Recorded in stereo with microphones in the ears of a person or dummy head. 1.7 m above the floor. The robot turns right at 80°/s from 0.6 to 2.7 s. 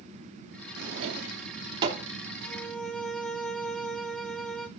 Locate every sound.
0.8 s a drawer: 65° right (ahead or behind), 2.5 m; by 2.1 s centre (ahead or behind), 2.5 m
2.4 s a violin: 20° left (ahead or behind), 1.2 m; by 4.7 s 5° right (ahead or behind), 1.2 m